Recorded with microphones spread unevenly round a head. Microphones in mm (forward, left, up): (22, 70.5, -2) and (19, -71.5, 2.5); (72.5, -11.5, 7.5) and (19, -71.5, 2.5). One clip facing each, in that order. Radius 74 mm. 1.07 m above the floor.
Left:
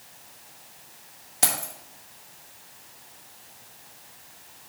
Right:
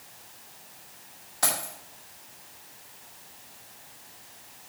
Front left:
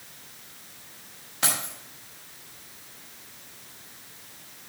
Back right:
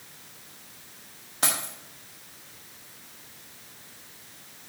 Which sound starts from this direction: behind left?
Keys jangling, at 1.4 s.